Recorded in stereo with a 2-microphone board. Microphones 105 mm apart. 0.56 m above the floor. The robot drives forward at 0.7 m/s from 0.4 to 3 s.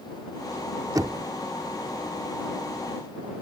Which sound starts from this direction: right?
Knocking, at 0.9 s.